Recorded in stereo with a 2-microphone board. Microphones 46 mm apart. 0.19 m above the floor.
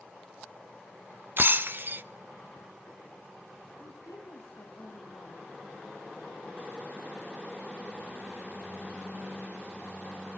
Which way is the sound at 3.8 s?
70° left (ahead or behind).